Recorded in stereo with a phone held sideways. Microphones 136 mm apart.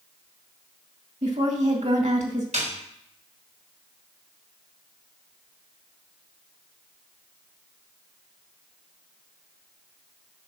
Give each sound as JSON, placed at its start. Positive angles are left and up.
{"t": 1.2, "sound": "a woman speaking", "side_deg": -65, "distance_m": 2.0}
{"t": 2.5, "sound": "a snare drum", "side_deg": -65, "distance_m": 4.0}